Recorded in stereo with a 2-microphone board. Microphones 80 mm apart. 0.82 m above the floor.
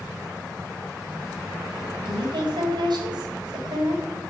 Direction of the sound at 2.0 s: 85° right.